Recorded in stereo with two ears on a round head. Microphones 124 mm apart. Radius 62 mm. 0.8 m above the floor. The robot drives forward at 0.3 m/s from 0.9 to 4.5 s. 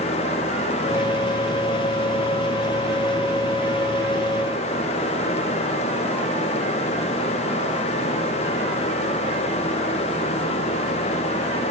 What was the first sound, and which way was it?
Only background noise.